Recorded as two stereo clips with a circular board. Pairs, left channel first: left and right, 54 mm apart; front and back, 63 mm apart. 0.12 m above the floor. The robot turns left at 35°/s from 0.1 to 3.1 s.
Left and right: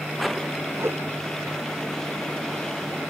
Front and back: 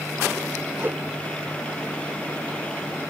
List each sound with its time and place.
0.8 s a whoosh: 120° right; by 1.0 s 130° right